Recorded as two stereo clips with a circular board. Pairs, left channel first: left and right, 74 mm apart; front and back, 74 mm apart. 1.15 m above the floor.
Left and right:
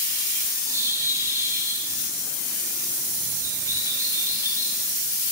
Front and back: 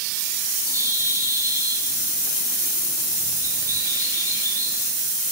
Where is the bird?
135° right, 1.9 m.